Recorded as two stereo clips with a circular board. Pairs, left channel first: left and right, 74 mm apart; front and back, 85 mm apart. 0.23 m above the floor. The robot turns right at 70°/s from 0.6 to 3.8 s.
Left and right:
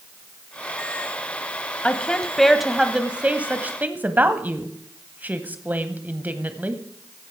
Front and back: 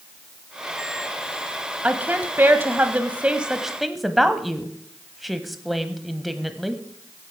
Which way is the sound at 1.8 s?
130° left.